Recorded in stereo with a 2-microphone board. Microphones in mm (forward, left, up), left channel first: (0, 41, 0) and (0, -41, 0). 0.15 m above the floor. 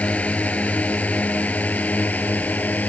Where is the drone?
15° left (ahead or behind); by 2.9 s 20° left (ahead or behind).